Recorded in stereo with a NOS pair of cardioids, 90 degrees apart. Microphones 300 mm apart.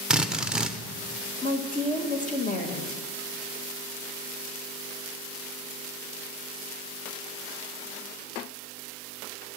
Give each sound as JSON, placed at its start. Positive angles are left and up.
{"t": 0.1, "sound": "a drill", "azimuth_deg": 0, "distance_m": 1.1}
{"t": 1.4, "sound": "a woman speaking", "azimuth_deg": 25, "distance_m": 2.0}